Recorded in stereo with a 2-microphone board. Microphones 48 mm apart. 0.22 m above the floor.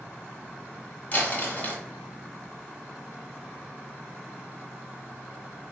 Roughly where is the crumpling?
Left.